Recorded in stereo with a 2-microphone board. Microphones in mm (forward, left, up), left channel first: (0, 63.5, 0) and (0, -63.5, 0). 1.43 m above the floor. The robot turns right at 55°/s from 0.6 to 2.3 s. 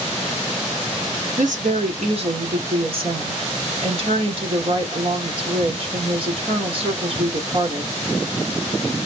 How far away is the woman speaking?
About 1.3 m.